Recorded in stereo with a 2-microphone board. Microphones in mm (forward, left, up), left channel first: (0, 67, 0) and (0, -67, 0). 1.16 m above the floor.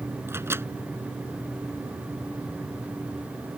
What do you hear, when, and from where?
0.3 s a microwave: 20° right (ahead or behind)